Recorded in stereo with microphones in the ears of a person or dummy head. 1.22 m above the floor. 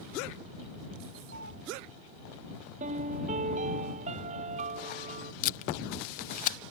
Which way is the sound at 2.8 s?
40° right (ahead or behind).